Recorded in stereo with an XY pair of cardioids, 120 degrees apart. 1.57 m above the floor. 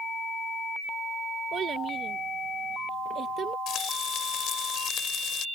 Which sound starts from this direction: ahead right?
A child speaking, at 1.5 s.